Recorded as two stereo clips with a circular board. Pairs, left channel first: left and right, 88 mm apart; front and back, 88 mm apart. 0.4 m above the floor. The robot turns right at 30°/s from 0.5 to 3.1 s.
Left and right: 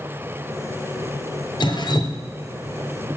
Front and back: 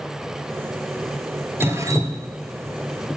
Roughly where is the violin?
No violin in this recording.